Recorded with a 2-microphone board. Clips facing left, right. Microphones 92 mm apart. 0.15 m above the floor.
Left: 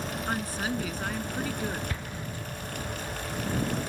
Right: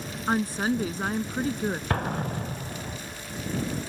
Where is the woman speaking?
35° right (ahead or behind).